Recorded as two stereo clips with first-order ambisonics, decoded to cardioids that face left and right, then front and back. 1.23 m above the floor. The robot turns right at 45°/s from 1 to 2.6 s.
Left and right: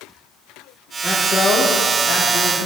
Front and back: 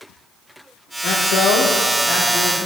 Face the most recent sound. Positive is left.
turn(degrees=75)